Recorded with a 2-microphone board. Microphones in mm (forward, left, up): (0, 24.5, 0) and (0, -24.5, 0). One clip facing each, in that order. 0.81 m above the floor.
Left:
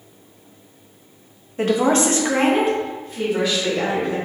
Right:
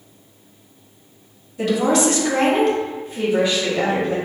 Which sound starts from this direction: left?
A woman speaking, at 1.6 s.